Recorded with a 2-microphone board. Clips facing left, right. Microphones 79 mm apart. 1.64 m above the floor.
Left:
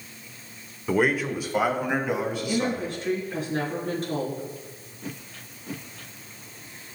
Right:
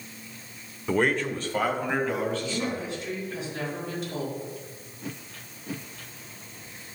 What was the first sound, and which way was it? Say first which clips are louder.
A man speaking: left 1 dB; 5° left (ahead or behind).